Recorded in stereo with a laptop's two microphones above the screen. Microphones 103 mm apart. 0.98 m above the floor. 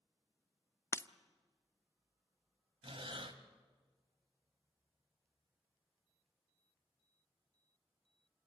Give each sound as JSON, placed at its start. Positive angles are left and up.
{"t": 0.9, "sound": "breaking glass", "side_deg": 25, "distance_m": 0.6}
{"t": 2.8, "sound": "breathing", "side_deg": -60, "distance_m": 1.5}